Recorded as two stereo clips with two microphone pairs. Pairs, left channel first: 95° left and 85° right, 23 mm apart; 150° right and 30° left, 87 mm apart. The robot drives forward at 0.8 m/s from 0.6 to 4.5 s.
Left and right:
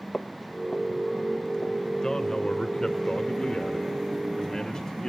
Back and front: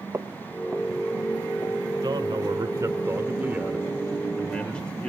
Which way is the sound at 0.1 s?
75° left.